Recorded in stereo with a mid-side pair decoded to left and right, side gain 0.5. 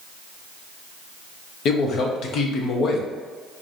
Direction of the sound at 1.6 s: 60° left.